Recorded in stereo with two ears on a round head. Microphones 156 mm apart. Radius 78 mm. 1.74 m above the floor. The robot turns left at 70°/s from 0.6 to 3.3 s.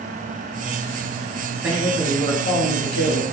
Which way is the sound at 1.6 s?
165° right.